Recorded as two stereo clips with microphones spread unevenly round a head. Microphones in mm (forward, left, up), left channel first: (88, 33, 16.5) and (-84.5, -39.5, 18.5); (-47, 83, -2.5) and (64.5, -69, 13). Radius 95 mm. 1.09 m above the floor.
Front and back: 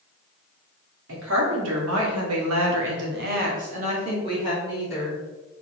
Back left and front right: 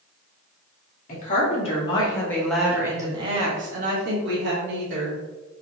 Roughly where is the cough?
I don't hear a cough.